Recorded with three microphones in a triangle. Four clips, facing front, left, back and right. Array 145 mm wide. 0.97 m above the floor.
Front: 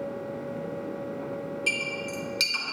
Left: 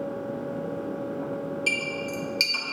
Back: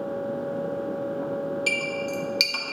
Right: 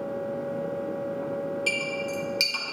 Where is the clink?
175° right, 0.9 m.